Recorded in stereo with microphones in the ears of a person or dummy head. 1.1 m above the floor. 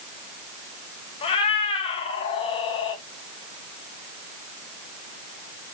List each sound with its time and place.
1.2 s a cat meowing: 35° left (ahead or behind), 1.1 m